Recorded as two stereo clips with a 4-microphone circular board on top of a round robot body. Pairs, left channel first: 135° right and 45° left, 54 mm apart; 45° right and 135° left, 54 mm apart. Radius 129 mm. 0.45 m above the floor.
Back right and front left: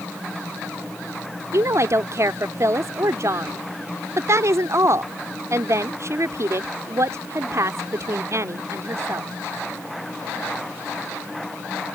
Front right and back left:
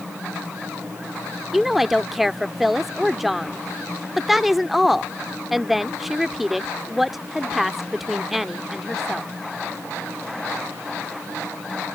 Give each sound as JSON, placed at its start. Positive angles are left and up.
{"t": 1.5, "sound": "a woman speaking", "azimuth_deg": 50}